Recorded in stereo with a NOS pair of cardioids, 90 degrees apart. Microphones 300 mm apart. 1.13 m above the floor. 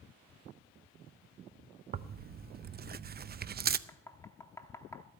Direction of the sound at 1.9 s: 35° right.